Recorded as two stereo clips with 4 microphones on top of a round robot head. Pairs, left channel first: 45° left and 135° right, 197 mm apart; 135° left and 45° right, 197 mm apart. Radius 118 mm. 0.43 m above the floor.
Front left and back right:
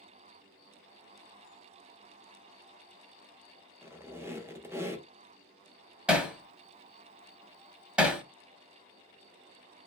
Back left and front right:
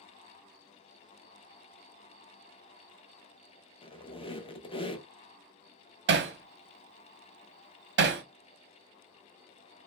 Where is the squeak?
160° left, 0.7 m.